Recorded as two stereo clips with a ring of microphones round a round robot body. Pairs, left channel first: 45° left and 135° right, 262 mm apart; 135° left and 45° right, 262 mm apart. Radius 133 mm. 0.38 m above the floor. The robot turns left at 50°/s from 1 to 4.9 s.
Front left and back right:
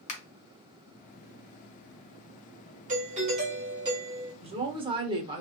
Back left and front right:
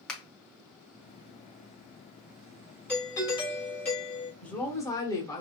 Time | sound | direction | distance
0.1 | a finger snap | 50° left | 0.9 m
2.9 | a doorbell | 145° right | 1.8 m
4.4 | a woman speaking | 145° right | 0.8 m